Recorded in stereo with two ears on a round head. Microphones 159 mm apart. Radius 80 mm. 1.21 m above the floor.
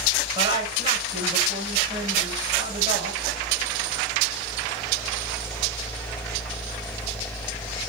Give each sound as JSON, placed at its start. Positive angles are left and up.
{"t": 0.3, "sound": "a woman speaking", "side_deg": -30, "distance_m": 7.0}